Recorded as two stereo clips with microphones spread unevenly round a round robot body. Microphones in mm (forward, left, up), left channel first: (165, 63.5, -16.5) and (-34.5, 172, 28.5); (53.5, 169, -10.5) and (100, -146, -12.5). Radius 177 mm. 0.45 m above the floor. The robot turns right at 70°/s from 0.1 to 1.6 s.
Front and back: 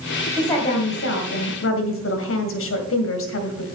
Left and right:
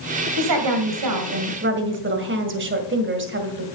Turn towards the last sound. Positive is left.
turn(degrees=-30)